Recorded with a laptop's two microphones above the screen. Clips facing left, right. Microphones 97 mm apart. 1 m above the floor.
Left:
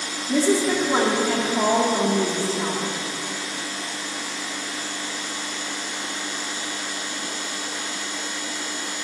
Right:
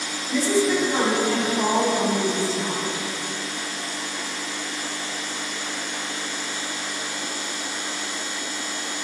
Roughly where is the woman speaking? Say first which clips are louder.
Left 1 dB; left.